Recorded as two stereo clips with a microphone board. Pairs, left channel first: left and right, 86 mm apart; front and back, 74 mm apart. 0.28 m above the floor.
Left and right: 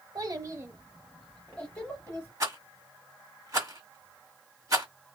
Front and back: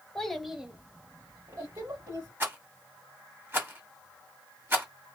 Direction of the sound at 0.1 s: 75° right.